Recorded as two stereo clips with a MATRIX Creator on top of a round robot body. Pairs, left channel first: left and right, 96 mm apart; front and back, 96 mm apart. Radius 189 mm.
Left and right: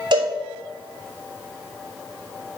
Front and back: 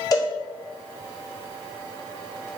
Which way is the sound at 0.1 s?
50° right.